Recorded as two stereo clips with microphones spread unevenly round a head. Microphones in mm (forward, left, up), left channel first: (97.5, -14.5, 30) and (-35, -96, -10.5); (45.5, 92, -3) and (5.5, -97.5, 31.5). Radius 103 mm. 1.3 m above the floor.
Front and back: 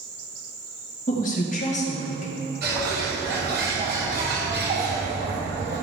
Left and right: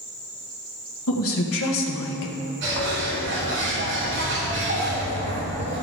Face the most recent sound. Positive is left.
turn(degrees=-140)